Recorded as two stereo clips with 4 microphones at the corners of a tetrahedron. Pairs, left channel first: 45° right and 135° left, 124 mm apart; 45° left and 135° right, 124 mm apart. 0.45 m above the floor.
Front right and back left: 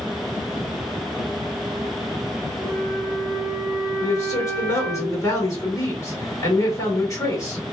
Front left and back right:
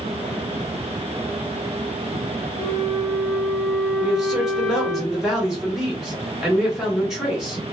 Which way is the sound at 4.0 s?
50° right.